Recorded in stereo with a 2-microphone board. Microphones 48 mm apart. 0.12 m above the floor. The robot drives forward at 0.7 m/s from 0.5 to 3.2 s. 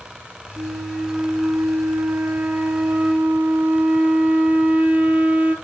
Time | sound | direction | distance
0.6 | a flute | 30° right (ahead or behind) | 1.1 m